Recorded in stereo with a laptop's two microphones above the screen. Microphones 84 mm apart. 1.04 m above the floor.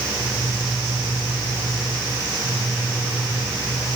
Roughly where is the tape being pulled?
I don't hear tape being pulled.